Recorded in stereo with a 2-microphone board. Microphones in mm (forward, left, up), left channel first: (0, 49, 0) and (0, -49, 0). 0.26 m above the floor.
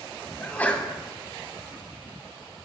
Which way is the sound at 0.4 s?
15° left (ahead or behind).